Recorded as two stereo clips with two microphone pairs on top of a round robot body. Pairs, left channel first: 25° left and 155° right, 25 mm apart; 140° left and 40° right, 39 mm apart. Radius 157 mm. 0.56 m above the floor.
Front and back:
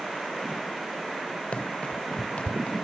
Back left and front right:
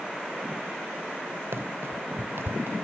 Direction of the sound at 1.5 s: 10° right.